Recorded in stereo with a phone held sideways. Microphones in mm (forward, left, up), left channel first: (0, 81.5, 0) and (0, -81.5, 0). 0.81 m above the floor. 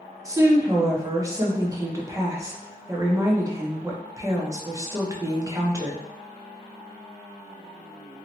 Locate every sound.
0.2 s a woman speaking: 20° right (ahead or behind), 0.8 m